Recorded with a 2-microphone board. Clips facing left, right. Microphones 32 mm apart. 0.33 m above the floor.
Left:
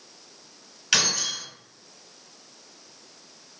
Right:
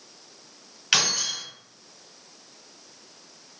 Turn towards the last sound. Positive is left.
turn(degrees=-20)  # may be behind; listen again after turning